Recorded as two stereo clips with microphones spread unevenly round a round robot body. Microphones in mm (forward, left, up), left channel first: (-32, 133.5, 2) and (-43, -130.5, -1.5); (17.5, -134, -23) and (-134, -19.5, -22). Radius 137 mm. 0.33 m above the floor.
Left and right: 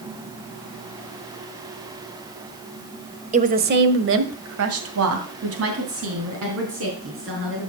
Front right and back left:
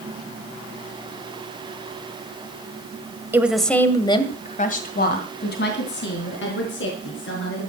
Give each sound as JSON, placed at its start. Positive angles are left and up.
{"t": 3.3, "sound": "a woman speaking", "azimuth_deg": -145, "distance_m": 1.5}